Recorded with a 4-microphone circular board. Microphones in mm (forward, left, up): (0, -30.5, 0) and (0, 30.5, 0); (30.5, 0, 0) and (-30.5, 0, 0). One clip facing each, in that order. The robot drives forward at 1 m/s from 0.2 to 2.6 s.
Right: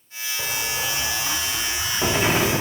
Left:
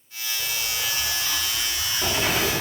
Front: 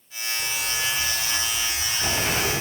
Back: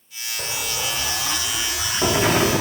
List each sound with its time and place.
0.4 s an explosion: 135° right, 3.5 m; by 2.6 s 150° right, 5 m